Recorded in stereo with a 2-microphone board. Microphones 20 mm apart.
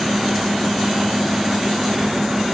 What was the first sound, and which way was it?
Only background noise.